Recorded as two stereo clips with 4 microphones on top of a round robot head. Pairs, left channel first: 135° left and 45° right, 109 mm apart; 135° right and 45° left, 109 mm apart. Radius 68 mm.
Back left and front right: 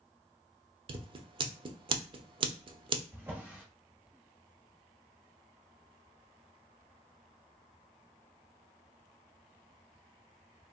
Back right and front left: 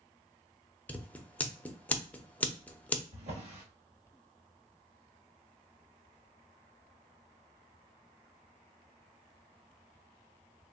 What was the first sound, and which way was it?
Scissors, 65° right.